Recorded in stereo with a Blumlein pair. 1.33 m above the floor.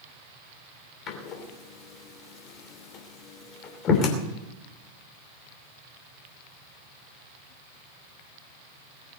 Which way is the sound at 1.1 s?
35° left.